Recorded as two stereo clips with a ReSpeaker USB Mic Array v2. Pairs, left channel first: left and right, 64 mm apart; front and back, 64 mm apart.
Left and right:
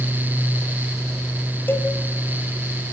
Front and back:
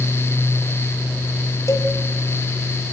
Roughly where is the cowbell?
Ahead left.